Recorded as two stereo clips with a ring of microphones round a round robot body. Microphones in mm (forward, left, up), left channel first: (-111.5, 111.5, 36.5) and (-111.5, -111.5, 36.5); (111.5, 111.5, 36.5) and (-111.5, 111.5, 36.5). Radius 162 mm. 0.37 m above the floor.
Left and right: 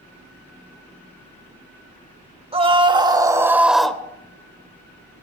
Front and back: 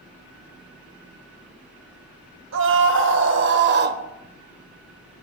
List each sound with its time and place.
2.5 s a scream: 155° right, 2.5 m; by 4.0 s 170° left, 1.4 m